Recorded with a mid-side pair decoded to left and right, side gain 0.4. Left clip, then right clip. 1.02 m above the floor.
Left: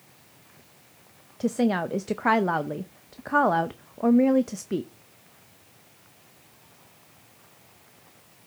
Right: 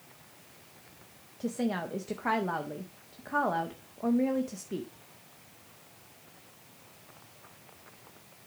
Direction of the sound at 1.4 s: 60° left.